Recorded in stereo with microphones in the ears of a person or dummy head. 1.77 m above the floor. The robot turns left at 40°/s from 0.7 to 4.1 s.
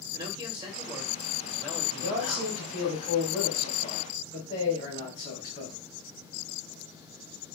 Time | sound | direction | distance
0.1 | a man speaking | 155° right | 1.3 m
1.9 | a man speaking | 135° right | 2.5 m